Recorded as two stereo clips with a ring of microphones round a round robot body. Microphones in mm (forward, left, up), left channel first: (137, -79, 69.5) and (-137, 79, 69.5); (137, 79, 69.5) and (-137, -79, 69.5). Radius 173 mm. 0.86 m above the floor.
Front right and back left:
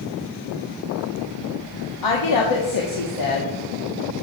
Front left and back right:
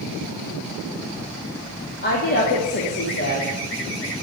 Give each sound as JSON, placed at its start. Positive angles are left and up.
{"t": 2.0, "sound": "a woman speaking", "azimuth_deg": -25, "distance_m": 1.5}